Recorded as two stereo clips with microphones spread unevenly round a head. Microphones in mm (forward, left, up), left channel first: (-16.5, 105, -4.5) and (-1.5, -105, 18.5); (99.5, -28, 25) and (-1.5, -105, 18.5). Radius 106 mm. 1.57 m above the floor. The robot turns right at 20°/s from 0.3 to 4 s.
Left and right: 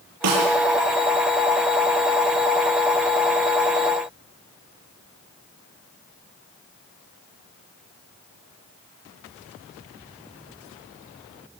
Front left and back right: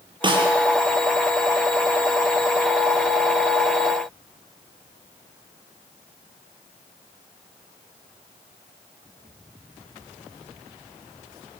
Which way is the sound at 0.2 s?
90° right.